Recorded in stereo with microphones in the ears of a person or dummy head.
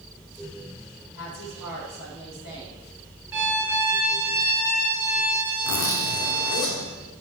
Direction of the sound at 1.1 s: 75° left (ahead or behind).